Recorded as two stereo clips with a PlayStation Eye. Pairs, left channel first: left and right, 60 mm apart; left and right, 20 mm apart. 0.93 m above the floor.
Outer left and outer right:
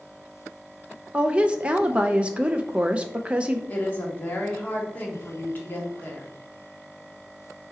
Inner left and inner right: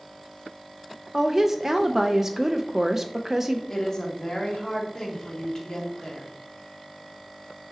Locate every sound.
1.1 s a woman speaking: 20° right (ahead or behind), 0.6 m
3.7 s a woman speaking: 30° left (ahead or behind), 1.9 m